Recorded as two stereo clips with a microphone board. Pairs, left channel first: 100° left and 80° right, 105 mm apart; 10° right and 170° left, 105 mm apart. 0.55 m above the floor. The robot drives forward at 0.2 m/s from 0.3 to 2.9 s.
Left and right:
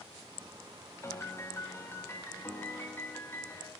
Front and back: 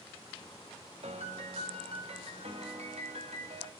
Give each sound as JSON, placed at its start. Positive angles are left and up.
{"t": 1.0, "sound": "a piano", "azimuth_deg": 165, "distance_m": 0.7}